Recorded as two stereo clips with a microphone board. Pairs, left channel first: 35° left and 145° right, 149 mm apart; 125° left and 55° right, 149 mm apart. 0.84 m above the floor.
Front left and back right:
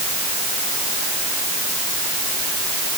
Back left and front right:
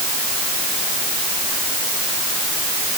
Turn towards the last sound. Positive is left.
No sound to turn to.